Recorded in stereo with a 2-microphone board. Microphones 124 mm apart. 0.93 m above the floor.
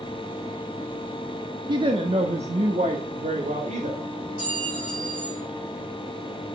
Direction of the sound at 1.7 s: 35° right (ahead or behind).